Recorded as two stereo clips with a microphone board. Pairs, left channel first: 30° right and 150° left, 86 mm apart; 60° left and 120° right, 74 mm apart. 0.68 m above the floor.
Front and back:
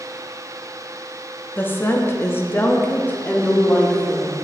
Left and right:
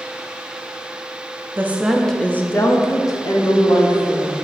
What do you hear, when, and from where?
1.6 s a woman speaking: 80° right, 0.7 m; by 4.3 s 45° left, 1.7 m